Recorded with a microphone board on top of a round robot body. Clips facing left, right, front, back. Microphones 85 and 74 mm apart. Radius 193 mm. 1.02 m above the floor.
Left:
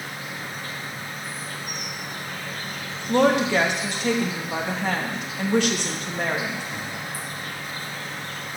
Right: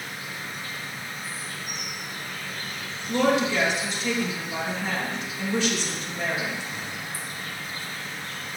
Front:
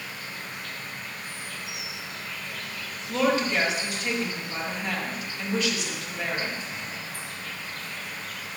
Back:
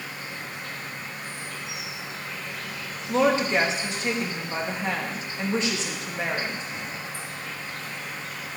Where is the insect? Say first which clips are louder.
Left 2 dB, back 2 dB; 125° left, 1.5 m.